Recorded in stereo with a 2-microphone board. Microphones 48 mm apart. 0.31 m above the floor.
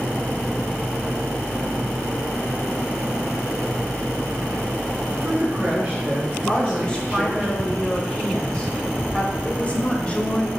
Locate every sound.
5.1 s a man speaking: 35° right (ahead or behind), 3 m; by 7.5 s 30° right (ahead or behind), 4.5 m
6.5 s a woman speaking: 20° left (ahead or behind), 1.6 m
9.4 s a woman speaking: 25° left (ahead or behind), 1.0 m